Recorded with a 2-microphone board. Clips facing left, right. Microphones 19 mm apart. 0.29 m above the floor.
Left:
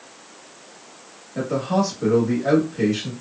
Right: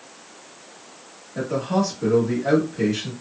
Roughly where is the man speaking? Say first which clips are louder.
Left 1 dB; left.